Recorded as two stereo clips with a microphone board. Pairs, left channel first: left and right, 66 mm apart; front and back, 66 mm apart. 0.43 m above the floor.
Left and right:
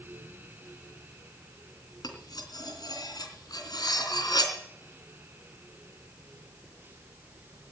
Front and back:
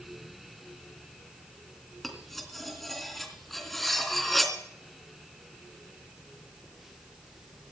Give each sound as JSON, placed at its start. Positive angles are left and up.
{"t": 2.0, "sound": "cutlery clinking", "azimuth_deg": 85, "distance_m": 3.0}